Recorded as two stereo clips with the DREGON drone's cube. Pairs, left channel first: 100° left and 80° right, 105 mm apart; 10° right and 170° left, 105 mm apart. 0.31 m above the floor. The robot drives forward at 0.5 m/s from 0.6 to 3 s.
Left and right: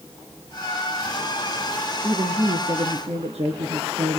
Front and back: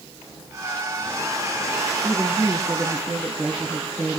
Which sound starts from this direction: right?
A woman speaking, at 2.0 s.